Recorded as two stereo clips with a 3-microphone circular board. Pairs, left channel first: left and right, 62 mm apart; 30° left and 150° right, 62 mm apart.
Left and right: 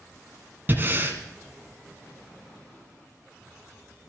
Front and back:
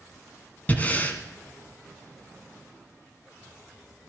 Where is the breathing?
35° right, 1.8 m.